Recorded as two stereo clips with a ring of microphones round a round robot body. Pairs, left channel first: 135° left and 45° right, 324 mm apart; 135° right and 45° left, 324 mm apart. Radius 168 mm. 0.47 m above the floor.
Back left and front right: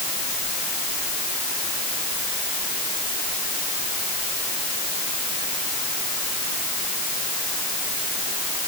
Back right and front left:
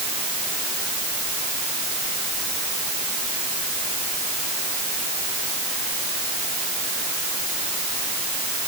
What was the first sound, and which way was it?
Only background noise.